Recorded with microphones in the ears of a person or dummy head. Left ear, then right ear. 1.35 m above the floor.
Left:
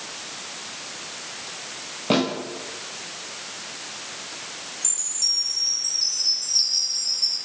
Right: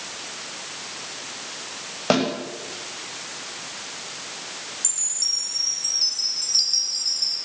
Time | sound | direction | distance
2.1 | a snare drum | 55° right (ahead or behind) | 6 m
4.8 | a chime | 5° left (ahead or behind) | 1.9 m